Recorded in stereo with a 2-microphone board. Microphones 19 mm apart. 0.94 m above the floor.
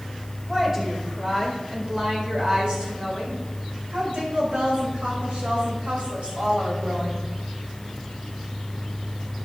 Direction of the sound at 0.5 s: 20° right (ahead or behind).